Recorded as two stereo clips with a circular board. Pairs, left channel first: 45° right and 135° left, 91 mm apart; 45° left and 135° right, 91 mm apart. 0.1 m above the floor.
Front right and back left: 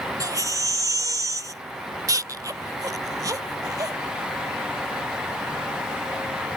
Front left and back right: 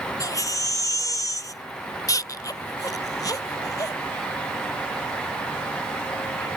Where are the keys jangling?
I don't hear keys jangling.